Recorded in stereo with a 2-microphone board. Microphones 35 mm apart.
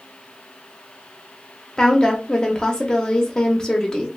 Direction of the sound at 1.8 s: 25° left (ahead or behind).